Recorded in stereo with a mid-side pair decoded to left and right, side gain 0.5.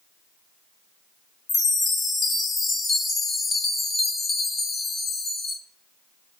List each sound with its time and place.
1.5 s a chime: 35° left, 0.6 m